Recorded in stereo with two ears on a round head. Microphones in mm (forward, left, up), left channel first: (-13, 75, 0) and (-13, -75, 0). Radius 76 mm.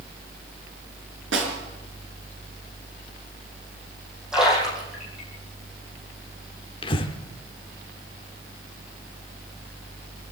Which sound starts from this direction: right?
A snare drum, at 1.3 s.